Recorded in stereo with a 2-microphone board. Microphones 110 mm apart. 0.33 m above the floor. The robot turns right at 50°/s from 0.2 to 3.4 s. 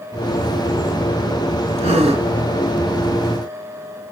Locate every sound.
1.8 s a gasp: 75° right (ahead or behind), 3.5 m; by 2.3 s 70° right (ahead or behind), 3.5 m